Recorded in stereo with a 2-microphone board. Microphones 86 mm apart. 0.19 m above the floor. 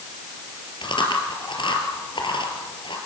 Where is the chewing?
70° left (ahead or behind), 4 m.